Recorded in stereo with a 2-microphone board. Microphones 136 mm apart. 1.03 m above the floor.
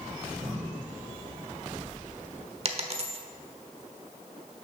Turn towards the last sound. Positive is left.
turn(degrees=-45)  # may be behind; listen again after turning